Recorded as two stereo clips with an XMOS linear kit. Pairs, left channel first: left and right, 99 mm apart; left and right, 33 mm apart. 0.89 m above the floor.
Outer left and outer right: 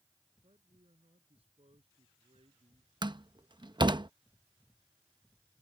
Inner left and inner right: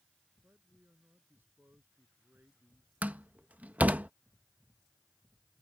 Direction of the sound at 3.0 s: 50° right (ahead or behind).